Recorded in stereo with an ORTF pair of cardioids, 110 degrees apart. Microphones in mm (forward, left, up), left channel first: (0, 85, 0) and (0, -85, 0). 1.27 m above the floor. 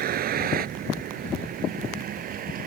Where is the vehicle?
60° right; by 2.7 s 55° right.